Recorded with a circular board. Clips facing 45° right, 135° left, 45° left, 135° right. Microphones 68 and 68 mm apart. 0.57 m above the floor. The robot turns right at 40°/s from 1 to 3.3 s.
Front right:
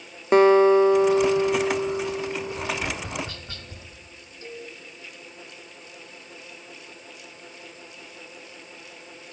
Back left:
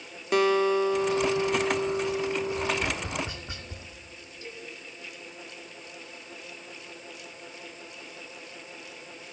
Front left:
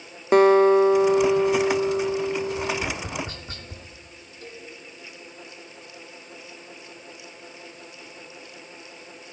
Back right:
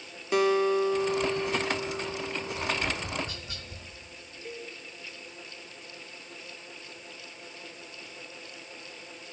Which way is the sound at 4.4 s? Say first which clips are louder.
Front right 4 dB, back right 1 dB; 15° left.